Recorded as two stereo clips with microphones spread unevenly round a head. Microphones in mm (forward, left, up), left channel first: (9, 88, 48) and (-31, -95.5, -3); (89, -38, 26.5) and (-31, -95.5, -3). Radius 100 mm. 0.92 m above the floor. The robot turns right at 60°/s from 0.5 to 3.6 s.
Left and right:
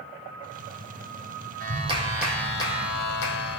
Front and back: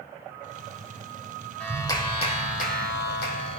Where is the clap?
55° right, 3 m; by 3.6 s 65° left, 3 m.